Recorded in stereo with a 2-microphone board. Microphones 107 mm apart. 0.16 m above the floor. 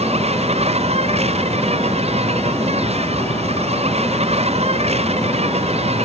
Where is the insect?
80° right.